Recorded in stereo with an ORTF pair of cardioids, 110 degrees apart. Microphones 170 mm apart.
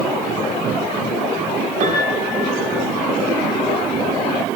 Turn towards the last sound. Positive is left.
turn(degrees=-55)